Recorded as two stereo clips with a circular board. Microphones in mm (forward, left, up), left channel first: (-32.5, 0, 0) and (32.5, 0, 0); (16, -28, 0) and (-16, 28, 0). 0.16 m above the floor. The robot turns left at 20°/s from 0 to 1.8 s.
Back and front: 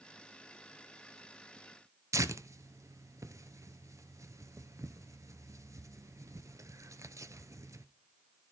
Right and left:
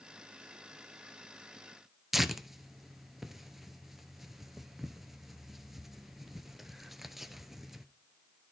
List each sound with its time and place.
2.1 s tearing paper: 35° left, 0.5 m